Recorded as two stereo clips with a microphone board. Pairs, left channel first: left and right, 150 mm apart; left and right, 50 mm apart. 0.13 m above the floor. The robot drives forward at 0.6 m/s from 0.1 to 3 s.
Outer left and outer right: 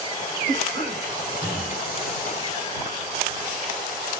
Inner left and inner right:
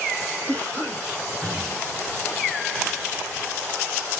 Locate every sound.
0.5 s a cough: 20° left (ahead or behind), 4 m